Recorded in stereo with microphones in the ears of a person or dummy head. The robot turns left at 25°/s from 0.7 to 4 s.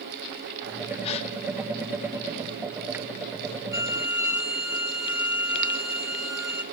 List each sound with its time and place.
1.0 s a gasp: 30° left (ahead or behind), 0.5 m; by 1.3 s 35° left (ahead or behind), 0.5 m
3.7 s a violin: 10° right (ahead or behind), 0.5 m; by 6.6 s 5° right (ahead or behind), 0.5 m